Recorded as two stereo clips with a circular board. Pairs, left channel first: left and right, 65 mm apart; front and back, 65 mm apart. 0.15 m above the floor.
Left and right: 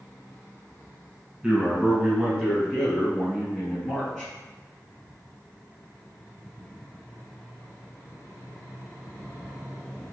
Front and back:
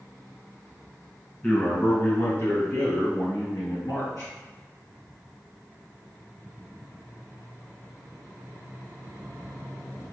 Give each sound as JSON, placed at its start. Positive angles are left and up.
{"t": 1.4, "sound": "a man speaking", "azimuth_deg": -30, "distance_m": 1.1}